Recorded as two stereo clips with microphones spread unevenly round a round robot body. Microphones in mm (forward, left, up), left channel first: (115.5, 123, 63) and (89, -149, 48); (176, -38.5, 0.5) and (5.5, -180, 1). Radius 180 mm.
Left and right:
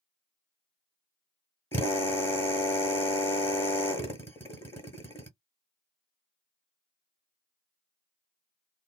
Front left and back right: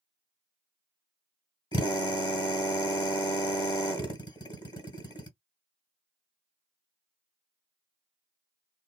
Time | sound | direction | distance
1.7 | a drill | 10° left | 1.5 m